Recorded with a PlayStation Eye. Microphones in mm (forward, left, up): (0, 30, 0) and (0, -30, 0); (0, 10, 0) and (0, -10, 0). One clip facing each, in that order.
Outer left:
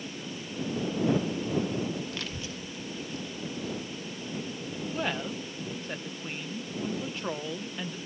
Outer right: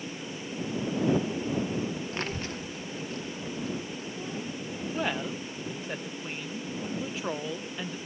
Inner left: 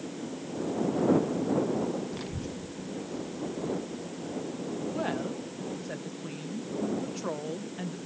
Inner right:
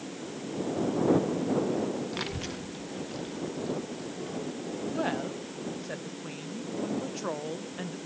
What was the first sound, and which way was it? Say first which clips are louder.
A child speaking: outer right 4 dB, inner right 3 dB; 30° right (ahead or behind).